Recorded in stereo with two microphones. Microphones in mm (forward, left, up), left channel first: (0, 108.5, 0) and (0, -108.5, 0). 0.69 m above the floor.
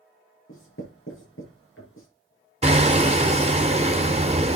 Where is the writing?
75° left (ahead or behind), 6 m.